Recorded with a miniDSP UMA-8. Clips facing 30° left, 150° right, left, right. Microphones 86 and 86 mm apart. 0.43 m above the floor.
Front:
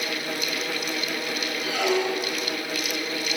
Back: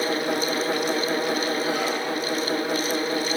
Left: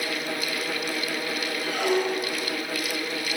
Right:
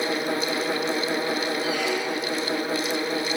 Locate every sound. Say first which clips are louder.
1.6 s a squeak: front 1 dB, left 1 dB; 45° left, 5 m